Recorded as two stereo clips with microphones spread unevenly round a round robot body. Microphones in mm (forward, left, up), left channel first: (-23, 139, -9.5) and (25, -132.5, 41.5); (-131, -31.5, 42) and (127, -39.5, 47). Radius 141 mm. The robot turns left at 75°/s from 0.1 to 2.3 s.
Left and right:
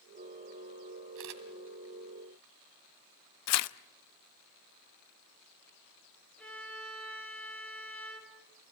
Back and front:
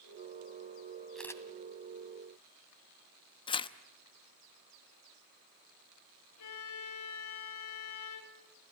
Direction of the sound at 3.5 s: 110° left.